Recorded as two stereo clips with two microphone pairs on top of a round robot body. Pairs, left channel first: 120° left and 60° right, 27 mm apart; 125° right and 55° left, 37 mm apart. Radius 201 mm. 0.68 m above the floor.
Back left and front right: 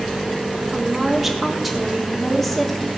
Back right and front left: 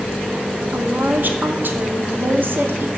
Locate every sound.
0.7 s a woman speaking: 20° left, 3 m; by 2.9 s 45° left, 3 m